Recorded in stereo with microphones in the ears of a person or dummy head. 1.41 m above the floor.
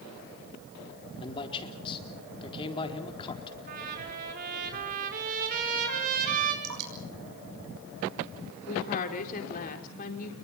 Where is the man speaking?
25° left (ahead or behind), 4 m.